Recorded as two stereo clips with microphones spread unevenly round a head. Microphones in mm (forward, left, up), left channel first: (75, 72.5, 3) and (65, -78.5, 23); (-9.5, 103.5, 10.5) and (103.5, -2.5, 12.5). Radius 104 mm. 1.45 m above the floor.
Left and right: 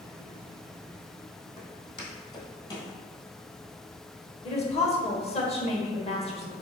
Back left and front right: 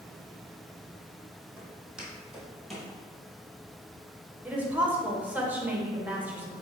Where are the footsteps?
35° left, 1.9 m; by 2.9 s 55° left, 1.5 m.